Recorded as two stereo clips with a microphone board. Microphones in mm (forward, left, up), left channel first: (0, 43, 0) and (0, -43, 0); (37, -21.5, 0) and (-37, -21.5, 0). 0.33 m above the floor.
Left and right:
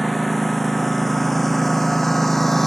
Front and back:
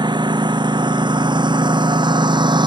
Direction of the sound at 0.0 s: Straight behind.